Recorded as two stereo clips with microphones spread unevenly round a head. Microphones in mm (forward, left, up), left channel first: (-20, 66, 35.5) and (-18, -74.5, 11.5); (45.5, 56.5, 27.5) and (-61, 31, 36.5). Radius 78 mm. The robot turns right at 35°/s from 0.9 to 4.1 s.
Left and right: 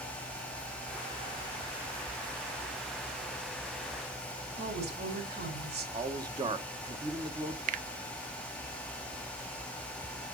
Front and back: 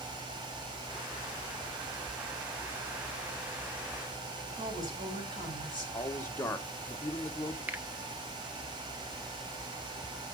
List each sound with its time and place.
4.5 s a woman speaking: 100° right, 6.5 m
5.9 s a man speaking: 50° right, 1.1 m
7.7 s a finger snap: 85° right, 0.5 m